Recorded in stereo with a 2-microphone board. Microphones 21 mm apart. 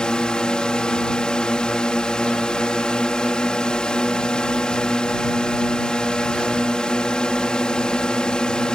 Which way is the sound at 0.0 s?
45° left (ahead or behind).